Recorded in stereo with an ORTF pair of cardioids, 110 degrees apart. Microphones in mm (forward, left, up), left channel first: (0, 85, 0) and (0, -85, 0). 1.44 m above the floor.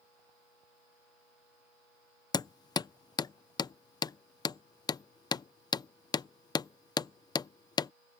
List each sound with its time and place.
2.3 s hammering: 25° left